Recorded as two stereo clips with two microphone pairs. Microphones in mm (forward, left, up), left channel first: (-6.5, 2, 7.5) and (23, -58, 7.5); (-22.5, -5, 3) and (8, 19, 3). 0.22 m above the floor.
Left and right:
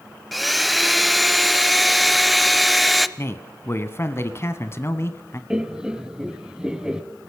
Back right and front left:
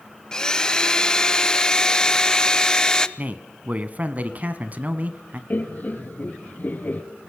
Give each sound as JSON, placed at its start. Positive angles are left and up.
{"t": 0.3, "sound": "a blender", "azimuth_deg": -145, "distance_m": 0.7}
{"t": 3.2, "sound": "a man speaking", "azimuth_deg": 75, "distance_m": 1.5}
{"t": 5.5, "sound": "laughter", "azimuth_deg": -140, "distance_m": 1.5}